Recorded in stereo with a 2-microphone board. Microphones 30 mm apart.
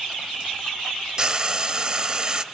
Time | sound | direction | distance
1.2 | frying | 25° right (ahead or behind) | 0.8 m